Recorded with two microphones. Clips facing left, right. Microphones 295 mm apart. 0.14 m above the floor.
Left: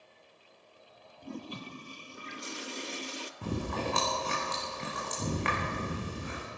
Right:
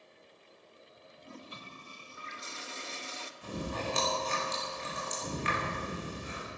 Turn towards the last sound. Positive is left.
turn(degrees=65)  # may be behind; listen again after turning